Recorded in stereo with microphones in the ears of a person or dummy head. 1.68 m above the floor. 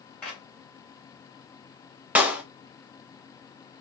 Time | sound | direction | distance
0.2 | a clap | 10° left (ahead or behind) | 3 m
2.1 | a clap | 5° right (ahead or behind) | 0.6 m